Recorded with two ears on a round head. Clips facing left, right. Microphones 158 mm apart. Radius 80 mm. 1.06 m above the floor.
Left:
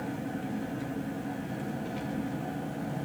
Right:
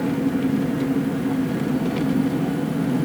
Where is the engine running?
70° right (ahead or behind), 1.0 m.